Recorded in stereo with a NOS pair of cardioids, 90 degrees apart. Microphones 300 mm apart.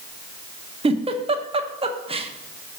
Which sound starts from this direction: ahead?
A giggle, at 0.8 s.